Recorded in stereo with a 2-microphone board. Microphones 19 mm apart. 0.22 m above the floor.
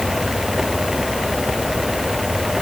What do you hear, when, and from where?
Only background noise.